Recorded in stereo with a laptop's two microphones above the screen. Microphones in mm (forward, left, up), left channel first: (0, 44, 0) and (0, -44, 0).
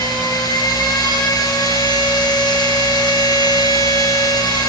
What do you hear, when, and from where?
0.0 s a machine running: 50° left (ahead or behind), 6.5 m